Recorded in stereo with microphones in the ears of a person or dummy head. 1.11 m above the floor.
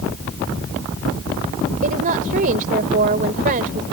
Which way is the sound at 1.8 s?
45° right (ahead or behind).